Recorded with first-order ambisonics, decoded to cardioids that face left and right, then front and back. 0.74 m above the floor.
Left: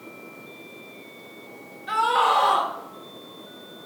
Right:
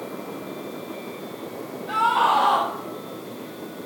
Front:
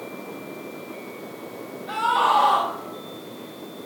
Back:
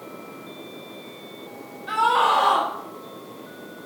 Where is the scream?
145° left, 3.5 m.